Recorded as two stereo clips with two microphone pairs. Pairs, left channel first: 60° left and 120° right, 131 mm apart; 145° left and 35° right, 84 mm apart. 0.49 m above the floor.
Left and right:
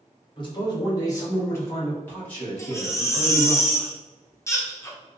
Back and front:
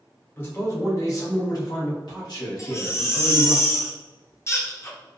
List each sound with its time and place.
0.4 s a man speaking: 95° left, 1.3 m; by 3.6 s 145° left, 2.5 m
2.6 s a baby crying: 115° left, 0.6 m